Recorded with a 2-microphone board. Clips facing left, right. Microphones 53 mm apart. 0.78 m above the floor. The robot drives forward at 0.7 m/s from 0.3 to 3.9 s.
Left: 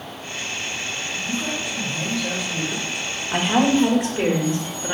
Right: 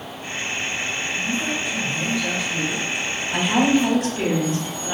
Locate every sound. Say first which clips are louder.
1.2 s a man speaking: right 1 dB; 20° right (ahead or behind), 0.7 m; by 2.9 s 10° right (ahead or behind), 1.7 m
3.3 s a woman speaking: even; 35° left (ahead or behind), 0.8 m; by 4.9 s 25° left (ahead or behind), 1.1 m